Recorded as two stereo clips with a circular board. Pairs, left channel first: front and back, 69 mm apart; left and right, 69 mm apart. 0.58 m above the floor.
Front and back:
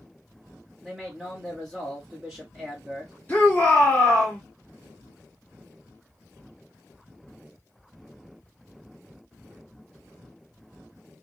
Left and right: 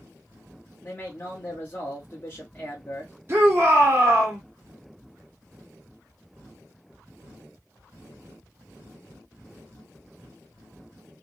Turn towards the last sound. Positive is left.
turn(degrees=-55)